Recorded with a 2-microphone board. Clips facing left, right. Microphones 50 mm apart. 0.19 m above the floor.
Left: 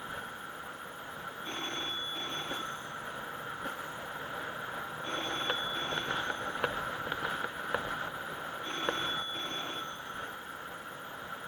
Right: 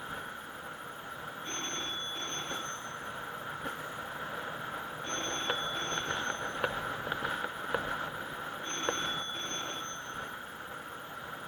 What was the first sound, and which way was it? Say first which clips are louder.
A phone ringing: left 1 dB; 10° left (ahead or behind).